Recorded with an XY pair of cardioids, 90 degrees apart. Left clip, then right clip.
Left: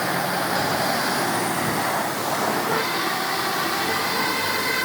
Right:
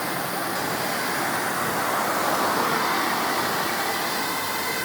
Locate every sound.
Only background noise.